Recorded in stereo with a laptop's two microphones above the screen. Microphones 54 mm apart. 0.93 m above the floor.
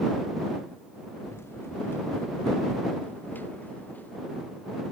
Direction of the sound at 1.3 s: 50° left (ahead or behind).